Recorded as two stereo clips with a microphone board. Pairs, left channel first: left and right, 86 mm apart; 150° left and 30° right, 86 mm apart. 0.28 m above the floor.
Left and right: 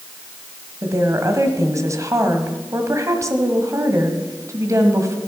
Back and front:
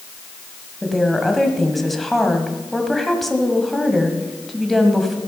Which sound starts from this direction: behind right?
A woman speaking, at 0.8 s.